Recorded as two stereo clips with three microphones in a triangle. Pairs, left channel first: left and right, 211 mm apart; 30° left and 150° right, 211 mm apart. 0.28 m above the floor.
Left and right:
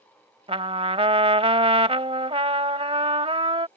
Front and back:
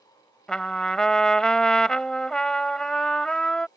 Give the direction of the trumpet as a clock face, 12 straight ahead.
2 o'clock.